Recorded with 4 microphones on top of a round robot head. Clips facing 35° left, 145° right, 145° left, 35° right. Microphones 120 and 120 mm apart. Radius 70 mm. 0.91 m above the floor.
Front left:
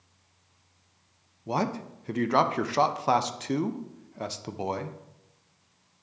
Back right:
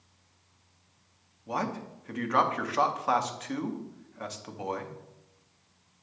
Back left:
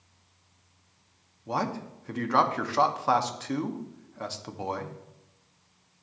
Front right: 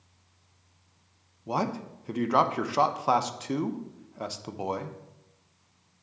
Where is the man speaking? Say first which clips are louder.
Front left 4 dB, front right 1 dB; 25° left, 0.5 m.